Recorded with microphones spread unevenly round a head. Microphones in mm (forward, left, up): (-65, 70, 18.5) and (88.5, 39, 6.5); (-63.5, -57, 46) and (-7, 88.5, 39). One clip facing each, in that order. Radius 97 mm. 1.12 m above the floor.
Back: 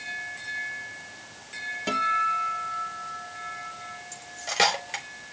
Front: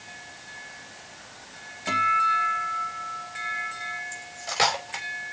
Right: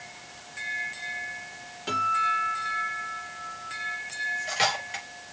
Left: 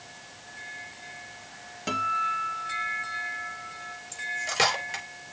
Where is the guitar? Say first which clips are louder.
Front 2 dB, right 1 dB; 110° left, 4 m.